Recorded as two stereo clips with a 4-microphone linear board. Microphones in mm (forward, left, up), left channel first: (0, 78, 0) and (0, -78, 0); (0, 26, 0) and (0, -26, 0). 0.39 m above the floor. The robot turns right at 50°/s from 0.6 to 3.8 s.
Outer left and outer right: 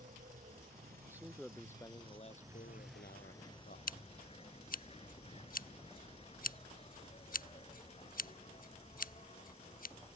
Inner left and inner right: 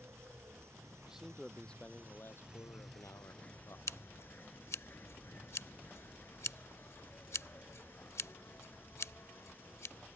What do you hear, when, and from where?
0.0 s an insect: 115° right; by 10.2 s 45° left
1.1 s a man speaking: 15° right; by 3.8 s 120° left
3.9 s scissors: 65° left (ahead or behind)